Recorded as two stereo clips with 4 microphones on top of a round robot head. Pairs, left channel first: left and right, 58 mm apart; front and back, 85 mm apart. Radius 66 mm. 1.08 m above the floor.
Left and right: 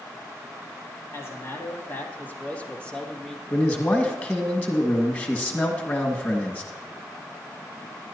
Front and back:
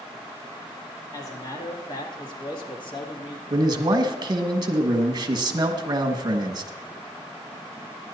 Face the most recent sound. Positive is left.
turn(degrees=150)